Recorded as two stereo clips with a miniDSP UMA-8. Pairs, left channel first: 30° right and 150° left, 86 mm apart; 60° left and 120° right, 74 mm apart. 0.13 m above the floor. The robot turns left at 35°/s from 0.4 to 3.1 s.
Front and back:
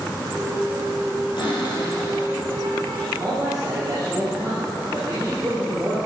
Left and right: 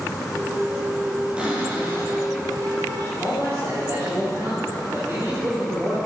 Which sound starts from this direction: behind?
A man speaking, at 3.2 s.